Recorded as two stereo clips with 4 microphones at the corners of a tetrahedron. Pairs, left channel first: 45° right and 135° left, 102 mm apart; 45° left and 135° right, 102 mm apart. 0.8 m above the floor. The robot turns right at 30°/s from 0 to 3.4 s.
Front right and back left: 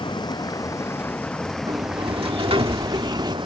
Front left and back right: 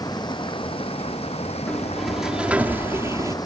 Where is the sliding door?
120° left; by 3.4 s 175° left.